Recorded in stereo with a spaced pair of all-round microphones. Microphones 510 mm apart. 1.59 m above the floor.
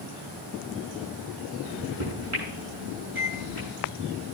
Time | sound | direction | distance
1.6 | a microwave | 80° right | 8 m